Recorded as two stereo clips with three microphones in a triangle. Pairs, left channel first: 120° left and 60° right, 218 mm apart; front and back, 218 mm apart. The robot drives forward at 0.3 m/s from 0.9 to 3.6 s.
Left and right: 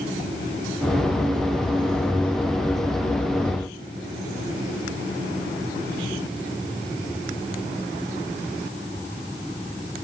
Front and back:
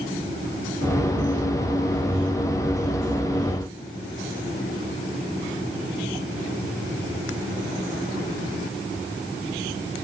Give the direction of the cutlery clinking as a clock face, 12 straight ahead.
I don't hear cutlery clinking.